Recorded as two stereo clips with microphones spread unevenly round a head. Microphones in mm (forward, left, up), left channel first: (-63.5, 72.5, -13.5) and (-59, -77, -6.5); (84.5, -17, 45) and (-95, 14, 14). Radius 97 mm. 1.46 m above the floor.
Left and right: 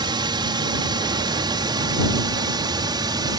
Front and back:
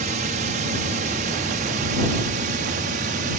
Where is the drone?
145° right; by 3.4 s 150° right.